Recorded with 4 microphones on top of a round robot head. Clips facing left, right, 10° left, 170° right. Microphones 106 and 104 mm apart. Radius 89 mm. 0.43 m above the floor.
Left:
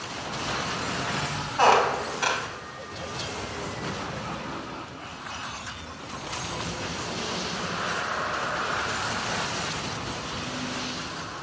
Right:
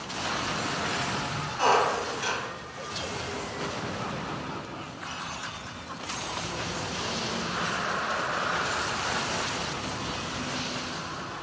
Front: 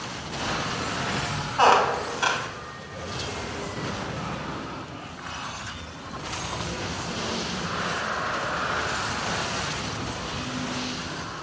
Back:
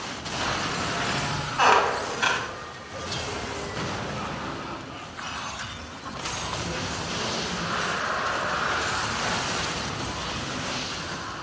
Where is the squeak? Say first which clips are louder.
Left 3 dB, front 2 dB; 70° left, 1.5 m.